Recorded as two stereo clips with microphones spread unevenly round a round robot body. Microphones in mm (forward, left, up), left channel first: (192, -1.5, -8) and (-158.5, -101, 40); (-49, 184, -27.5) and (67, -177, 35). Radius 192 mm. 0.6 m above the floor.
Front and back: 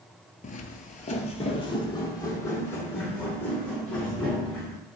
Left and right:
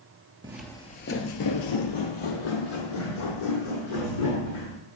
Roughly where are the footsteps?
Ahead right.